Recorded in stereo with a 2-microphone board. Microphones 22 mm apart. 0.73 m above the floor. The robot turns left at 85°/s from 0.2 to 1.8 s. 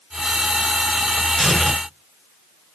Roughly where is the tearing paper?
Behind.